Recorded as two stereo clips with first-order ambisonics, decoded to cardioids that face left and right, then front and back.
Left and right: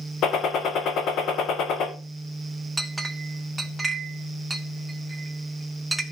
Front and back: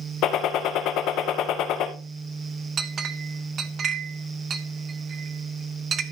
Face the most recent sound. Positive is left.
turn(degrees=-165)